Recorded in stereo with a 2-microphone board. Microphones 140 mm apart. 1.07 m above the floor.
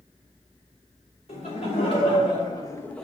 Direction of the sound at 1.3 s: 50° left (ahead or behind).